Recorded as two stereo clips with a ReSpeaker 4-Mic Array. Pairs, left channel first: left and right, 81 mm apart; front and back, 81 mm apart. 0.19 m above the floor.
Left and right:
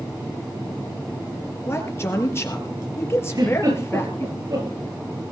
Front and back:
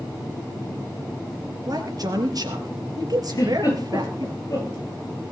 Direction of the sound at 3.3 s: 45° right.